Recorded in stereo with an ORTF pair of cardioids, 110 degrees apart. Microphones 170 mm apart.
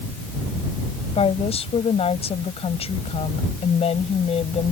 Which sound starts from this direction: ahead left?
A woman speaking, at 1.1 s.